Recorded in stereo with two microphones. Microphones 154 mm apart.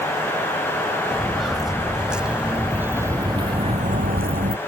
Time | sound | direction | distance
1.1 | footsteps | centre (ahead or behind) | ?